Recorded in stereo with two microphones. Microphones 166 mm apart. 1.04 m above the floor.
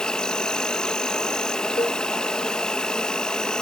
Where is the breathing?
I don't hear breathing.